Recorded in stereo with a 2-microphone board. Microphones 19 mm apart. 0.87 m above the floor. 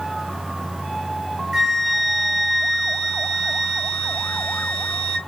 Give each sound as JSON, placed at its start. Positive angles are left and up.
{"t": 1.5, "sound": "a flute", "side_deg": 5, "distance_m": 2.5}